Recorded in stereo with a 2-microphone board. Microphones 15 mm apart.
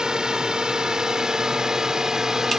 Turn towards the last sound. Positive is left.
turn(degrees=-40)  # may be behind; listen again after turning